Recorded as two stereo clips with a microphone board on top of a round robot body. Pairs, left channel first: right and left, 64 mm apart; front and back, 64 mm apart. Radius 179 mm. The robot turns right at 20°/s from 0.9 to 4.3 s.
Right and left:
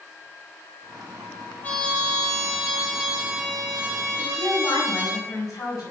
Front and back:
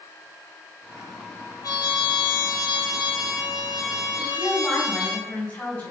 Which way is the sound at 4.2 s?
65° right.